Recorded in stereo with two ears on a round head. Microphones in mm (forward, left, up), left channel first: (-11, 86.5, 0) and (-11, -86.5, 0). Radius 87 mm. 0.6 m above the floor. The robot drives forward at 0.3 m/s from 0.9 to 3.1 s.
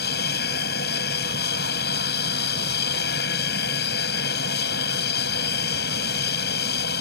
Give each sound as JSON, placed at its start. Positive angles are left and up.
{"t": 0.0, "sound": "an aircraft", "side_deg": 55}